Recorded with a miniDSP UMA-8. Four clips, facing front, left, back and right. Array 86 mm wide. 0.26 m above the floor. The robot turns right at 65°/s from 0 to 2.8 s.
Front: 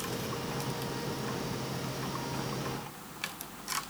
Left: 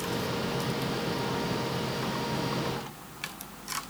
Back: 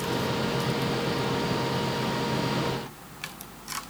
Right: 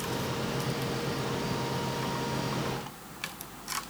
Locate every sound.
Only background noise.